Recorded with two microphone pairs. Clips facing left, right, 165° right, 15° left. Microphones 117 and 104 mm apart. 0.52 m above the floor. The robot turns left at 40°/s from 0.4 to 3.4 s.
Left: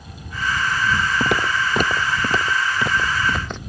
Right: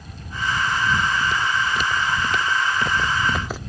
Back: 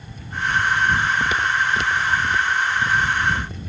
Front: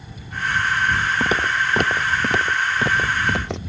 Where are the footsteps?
70° left; by 3.6 s straight ahead.